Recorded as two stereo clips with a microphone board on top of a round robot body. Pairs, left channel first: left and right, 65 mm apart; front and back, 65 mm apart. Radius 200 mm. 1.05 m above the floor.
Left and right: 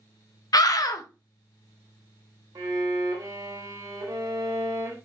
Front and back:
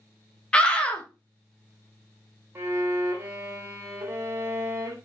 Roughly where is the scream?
Left.